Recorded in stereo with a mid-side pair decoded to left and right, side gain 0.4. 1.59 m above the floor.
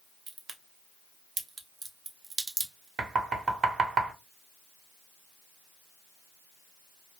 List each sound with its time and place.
0.3 s a crack: 55° right, 0.8 m
3.0 s knocking: 55° right, 1.0 m